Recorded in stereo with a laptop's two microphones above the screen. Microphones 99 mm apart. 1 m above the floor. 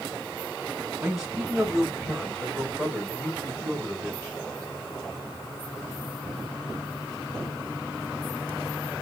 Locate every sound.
1.0 s a man speaking: 10° right (ahead or behind), 1.5 m; by 4.4 s 20° left (ahead or behind), 3.5 m